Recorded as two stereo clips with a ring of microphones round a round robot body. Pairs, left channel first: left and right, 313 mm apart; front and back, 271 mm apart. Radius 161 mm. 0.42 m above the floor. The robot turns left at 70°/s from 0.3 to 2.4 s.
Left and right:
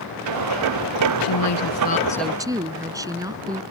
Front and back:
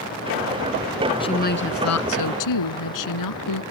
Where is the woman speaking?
75° left; by 3.6 s 10° right.